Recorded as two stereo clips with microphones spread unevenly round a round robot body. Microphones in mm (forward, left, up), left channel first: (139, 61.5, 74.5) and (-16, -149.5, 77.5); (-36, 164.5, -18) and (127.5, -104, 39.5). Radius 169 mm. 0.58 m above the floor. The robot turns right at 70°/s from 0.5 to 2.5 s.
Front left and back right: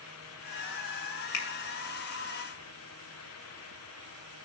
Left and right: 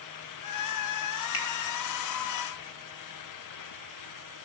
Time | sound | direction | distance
1.3 | a finger snap | 75° left | 2.5 m